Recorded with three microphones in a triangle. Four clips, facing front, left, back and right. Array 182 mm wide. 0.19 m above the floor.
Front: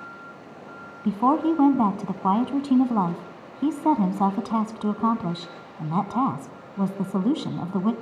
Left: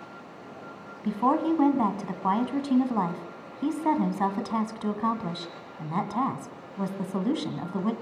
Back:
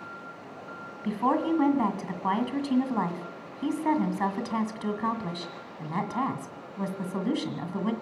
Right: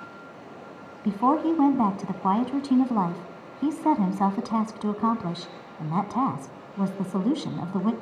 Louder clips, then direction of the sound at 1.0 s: Right 2 dB, front 5 dB; 25° right.